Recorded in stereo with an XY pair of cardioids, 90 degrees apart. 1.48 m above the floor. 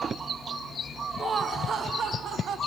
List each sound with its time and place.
1.2 s laughter: 45° right, 0.9 m; by 2.6 s 75° right, 1.4 m